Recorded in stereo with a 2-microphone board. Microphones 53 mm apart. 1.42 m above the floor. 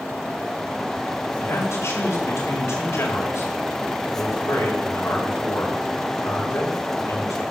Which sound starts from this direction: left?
A man speaking, at 1.4 s.